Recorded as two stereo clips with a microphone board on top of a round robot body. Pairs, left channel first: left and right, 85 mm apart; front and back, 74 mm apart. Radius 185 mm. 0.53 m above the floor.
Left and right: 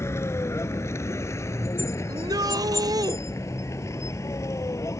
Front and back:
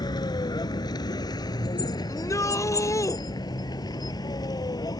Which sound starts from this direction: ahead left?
A vehicle, at 0.0 s.